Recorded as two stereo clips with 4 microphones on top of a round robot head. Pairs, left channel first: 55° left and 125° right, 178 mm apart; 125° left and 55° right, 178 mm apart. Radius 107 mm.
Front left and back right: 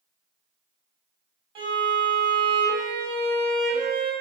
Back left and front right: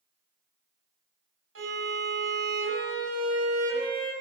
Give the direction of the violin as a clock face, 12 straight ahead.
2 o'clock.